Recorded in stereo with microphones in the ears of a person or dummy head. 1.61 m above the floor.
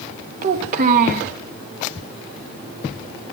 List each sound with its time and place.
0.4 s a child speaking: 50° right (ahead or behind), 1.4 m